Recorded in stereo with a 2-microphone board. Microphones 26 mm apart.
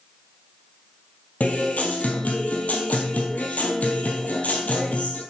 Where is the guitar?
70° left (ahead or behind), 1.4 m.